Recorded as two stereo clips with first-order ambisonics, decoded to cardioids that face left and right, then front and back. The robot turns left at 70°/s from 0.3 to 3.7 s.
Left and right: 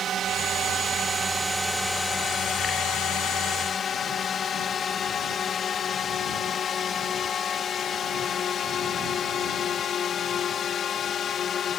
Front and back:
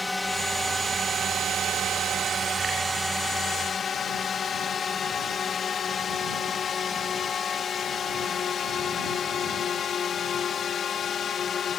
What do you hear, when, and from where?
0.0 s a drone: 75° right; by 11.8 s 45° left